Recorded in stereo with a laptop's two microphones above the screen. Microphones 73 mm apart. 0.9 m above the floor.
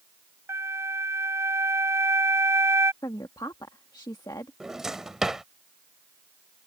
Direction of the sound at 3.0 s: 70° left (ahead or behind).